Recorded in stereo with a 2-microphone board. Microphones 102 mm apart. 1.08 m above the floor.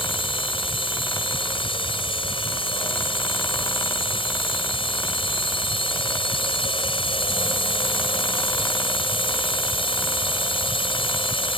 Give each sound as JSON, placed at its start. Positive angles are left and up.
{"t": 0.0, "sound": "a drone", "side_deg": 60}